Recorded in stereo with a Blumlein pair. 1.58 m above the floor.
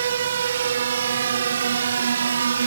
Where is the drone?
65° right; by 2.7 s 70° right.